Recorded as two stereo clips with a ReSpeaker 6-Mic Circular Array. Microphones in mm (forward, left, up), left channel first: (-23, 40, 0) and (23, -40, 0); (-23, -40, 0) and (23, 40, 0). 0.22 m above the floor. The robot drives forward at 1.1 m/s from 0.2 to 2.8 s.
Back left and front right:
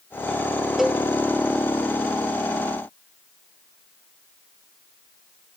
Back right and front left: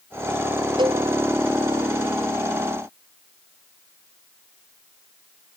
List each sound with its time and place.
0.8 s a cowbell: 30° left, 0.8 m; by 1.0 s 40° left, 0.6 m